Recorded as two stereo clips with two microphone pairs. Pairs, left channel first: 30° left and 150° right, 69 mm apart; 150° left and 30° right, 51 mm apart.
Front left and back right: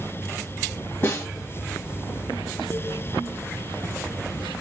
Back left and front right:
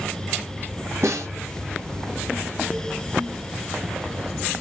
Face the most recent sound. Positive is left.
turn(degrees=-20)